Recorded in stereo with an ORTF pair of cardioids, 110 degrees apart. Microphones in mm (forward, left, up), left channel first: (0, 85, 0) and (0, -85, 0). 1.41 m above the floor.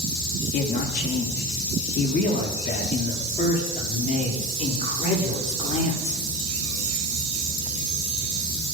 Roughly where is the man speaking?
Left.